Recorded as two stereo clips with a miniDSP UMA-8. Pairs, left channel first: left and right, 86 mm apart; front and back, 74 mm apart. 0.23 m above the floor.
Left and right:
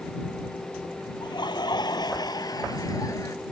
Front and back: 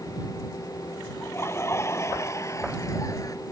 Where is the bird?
No bird in this recording.